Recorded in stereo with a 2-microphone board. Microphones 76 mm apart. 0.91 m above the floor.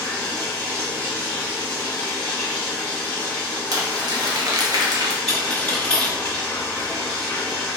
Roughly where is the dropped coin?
Centre.